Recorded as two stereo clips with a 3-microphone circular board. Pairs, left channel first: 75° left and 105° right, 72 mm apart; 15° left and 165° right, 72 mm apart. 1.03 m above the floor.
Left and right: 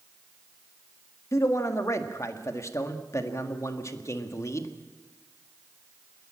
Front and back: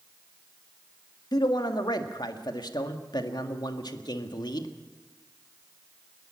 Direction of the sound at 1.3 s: 30° left.